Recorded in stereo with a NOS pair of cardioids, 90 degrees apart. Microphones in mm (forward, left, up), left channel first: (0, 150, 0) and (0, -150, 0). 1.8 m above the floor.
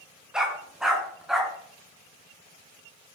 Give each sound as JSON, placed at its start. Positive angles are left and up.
{"t": 0.3, "sound": "a dog barking", "azimuth_deg": 0, "distance_m": 5.5}